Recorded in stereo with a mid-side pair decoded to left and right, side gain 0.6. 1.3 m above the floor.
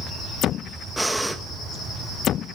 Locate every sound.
1.0 s breathing: 5° right, 1.1 m